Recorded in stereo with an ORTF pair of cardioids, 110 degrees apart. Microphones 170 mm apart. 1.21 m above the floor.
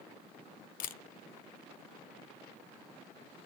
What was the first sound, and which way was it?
A camera shutter, 55° left.